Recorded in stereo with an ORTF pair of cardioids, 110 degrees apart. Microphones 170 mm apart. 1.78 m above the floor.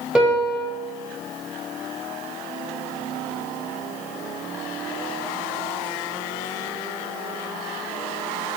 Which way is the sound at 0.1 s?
5° right.